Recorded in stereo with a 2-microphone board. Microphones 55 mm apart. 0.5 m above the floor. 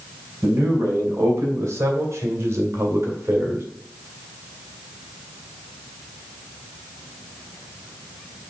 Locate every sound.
0.4 s a man speaking: 50° right (ahead or behind), 3.5 m; by 3.6 s 45° right (ahead or behind), 1.9 m